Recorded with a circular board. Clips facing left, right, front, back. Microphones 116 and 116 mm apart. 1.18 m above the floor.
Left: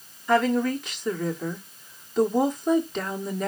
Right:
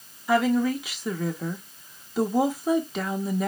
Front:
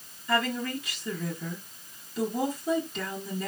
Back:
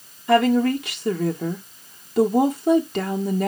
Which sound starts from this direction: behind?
A woman speaking, at 0.3 s.